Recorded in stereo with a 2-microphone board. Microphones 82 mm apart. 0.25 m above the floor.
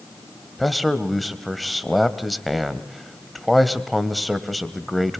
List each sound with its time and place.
0.6 s a man speaking: centre (ahead or behind), 1.1 m